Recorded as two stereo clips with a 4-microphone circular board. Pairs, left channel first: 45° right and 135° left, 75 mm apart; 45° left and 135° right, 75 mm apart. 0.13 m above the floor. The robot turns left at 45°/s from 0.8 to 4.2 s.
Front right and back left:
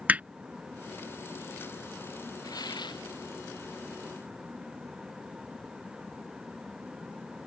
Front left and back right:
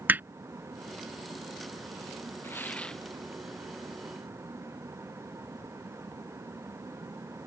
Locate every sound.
0.1 s hammering: 175° right
2.4 s tearing paper: 10° right; by 3.1 s 40° right